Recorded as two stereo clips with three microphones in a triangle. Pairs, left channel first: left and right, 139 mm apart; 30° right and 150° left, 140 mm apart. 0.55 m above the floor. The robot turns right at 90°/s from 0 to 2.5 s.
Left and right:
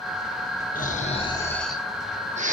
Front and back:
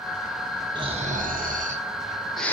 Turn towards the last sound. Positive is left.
turn(degrees=-110)